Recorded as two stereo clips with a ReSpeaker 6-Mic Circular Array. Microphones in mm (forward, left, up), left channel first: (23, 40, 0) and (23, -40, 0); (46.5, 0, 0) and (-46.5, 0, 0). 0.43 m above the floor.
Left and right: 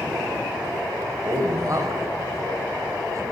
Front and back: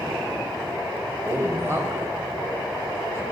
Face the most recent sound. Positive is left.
turn(degrees=-125)